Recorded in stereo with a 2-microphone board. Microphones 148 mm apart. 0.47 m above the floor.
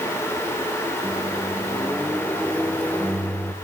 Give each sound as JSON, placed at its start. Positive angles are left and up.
{"t": 1.0, "sound": "a microwave", "side_deg": 10, "distance_m": 0.9}